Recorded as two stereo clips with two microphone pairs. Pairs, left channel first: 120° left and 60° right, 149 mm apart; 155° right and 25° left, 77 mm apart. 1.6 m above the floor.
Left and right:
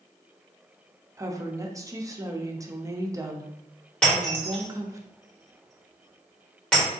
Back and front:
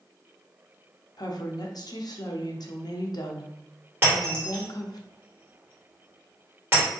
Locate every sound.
1.2 s a woman speaking: 125° right, 0.7 m
4.0 s breaking glass: 45° left, 1.4 m